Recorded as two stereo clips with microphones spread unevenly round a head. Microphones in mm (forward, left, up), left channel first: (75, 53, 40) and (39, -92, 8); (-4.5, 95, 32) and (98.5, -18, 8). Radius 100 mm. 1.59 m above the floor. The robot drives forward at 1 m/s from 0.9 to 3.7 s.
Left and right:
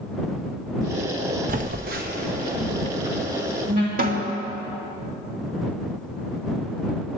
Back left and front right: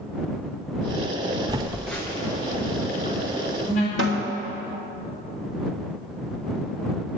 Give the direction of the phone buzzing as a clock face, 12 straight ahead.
4 o'clock.